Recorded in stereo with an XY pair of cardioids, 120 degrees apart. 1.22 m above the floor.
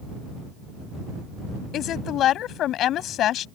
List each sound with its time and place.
1.7 s a woman speaking: 65° left